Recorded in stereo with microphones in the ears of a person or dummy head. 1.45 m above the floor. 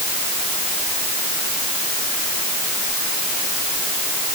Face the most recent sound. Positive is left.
No sound to turn to.